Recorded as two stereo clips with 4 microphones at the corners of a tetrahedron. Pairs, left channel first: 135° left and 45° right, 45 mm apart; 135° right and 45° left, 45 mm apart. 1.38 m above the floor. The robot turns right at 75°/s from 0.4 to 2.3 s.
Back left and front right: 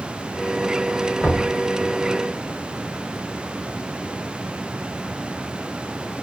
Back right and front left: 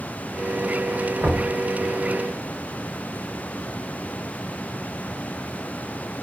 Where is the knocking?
70° left, 1.1 m; by 1.6 s 95° left, 1.1 m.